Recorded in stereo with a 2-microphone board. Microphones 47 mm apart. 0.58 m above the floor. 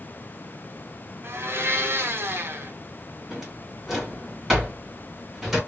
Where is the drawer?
5° right (ahead or behind), 2.0 m.